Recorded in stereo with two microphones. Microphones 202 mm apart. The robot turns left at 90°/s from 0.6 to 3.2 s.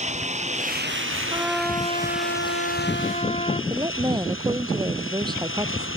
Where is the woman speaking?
20° right (ahead or behind).